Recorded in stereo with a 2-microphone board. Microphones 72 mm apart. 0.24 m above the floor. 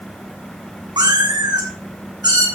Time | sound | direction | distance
1.0 | a cat meowing | 85° right | 2.5 m